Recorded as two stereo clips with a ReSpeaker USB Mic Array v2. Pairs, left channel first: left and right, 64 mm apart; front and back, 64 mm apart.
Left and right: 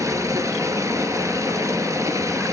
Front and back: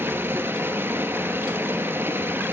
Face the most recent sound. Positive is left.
turn(degrees=-125)